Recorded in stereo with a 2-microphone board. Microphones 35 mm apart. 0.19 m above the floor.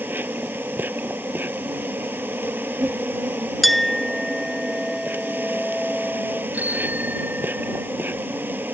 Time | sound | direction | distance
0.0 | an insect | 80° right | ?
3.6 | a clink | centre (ahead or behind) | ?
6.5 | a bicycle bell | 55° right (ahead or behind) | ?